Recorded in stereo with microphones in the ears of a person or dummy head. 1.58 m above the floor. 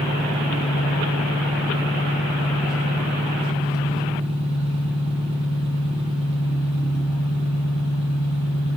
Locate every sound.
0.0 s an engine running: 25° right (ahead or behind), 1.6 m